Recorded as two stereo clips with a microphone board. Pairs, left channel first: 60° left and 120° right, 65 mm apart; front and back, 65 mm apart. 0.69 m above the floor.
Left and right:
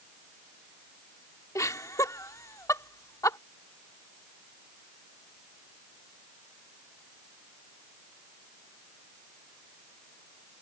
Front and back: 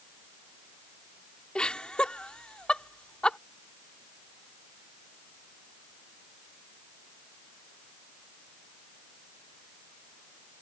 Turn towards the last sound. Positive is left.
turn(degrees=70)